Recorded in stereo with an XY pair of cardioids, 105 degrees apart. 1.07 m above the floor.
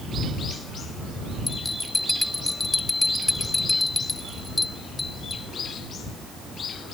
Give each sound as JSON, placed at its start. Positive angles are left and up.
{"t": 1.5, "sound": "a bell", "azimuth_deg": 20}